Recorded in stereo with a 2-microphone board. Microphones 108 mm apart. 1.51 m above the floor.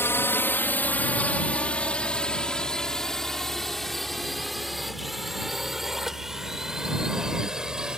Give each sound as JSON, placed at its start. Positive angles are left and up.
{"t": 0.0, "sound": "a drone", "side_deg": 20}